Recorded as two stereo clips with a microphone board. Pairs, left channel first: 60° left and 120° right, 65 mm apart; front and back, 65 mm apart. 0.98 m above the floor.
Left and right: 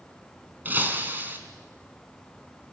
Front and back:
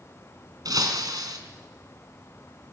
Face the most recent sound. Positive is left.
turn(degrees=180)